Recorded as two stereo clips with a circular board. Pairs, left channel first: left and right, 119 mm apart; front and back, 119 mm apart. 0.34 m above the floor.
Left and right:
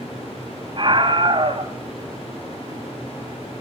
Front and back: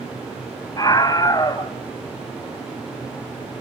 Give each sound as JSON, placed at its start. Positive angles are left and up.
{"t": 0.8, "sound": "a scream", "azimuth_deg": -50, "distance_m": 2.5}